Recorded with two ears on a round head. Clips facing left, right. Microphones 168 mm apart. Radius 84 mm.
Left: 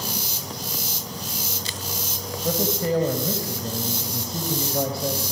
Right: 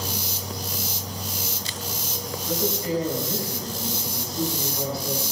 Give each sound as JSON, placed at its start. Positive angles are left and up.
{"t": 2.4, "sound": "a man speaking", "side_deg": 50, "distance_m": 4.5}